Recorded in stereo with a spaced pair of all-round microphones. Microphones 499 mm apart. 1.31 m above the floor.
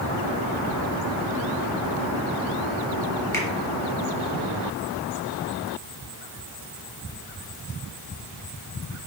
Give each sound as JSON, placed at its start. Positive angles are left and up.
{"t": 3.3, "sound": "a finger snap", "side_deg": 5, "distance_m": 1.3}